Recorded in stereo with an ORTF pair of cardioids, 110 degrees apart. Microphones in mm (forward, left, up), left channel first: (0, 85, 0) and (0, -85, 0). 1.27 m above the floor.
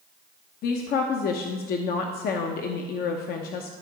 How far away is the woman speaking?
About 0.9 m.